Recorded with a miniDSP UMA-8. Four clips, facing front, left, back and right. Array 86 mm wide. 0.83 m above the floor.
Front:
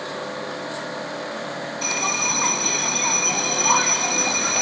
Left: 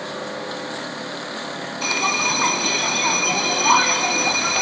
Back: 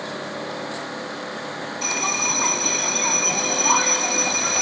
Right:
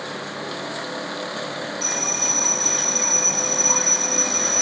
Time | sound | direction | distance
1.8 | a bell | 90° left | ?